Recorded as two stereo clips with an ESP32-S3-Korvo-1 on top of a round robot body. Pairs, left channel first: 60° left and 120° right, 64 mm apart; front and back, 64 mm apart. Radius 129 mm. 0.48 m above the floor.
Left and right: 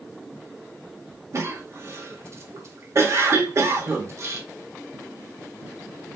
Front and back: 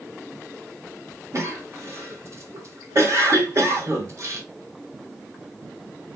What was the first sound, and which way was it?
A cough, 150° right.